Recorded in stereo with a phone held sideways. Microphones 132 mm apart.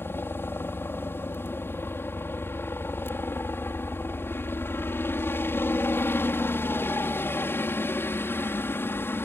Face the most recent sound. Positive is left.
turn(degrees=15)  # may be behind; listen again after turning